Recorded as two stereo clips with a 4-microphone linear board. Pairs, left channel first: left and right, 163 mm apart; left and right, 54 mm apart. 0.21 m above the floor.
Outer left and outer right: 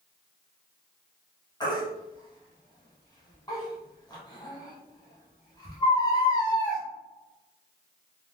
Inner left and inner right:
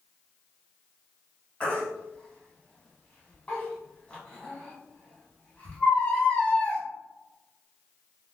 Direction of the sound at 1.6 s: 25° left (ahead or behind).